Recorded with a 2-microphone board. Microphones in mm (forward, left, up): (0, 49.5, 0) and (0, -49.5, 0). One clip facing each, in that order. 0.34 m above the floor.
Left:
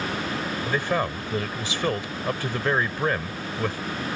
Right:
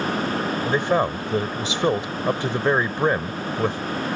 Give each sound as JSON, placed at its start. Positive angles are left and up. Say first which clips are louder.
{"t": 0.6, "sound": "a man speaking", "louder": "right 4 dB", "side_deg": -20}